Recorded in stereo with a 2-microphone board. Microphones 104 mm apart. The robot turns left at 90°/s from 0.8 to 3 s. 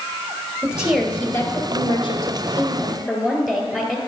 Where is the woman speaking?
165° right, 2 m; by 4.0 s 5° right, 2 m.